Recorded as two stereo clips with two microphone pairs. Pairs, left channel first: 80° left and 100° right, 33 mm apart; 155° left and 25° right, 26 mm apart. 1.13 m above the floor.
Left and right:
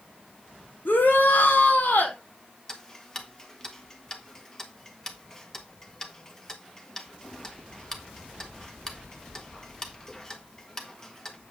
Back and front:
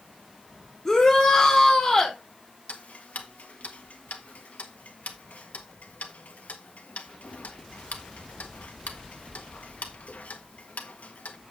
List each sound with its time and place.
0.8 s a shout: 90° left, 4.5 m
2.7 s ticking: 155° left, 1.4 m